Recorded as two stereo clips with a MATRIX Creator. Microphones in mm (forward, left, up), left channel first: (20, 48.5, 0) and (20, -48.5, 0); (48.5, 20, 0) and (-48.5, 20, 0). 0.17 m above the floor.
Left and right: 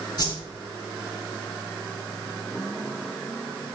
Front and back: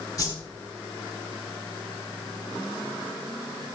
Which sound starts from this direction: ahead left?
A whoosh, at 0.2 s.